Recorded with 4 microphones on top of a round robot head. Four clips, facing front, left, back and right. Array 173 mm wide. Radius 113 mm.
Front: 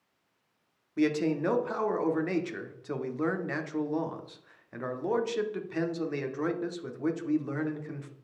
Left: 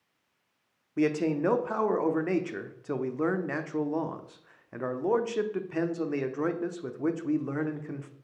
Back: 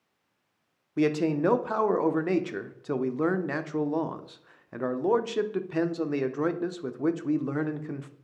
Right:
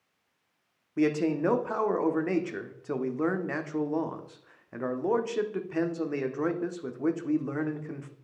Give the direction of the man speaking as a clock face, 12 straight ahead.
6 o'clock.